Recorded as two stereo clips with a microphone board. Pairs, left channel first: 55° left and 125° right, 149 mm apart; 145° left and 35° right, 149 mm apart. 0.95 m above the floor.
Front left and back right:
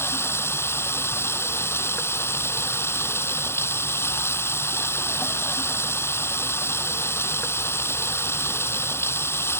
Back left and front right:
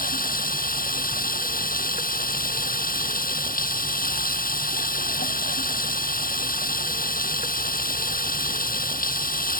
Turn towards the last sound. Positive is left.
turn(degrees=130)